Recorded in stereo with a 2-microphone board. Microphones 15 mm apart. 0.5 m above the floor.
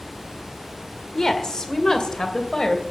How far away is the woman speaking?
About 1.6 m.